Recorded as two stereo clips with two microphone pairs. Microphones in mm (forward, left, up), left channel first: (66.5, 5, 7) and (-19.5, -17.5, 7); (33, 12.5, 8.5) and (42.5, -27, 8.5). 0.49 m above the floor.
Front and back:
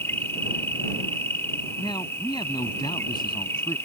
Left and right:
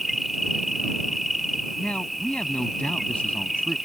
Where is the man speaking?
45° left.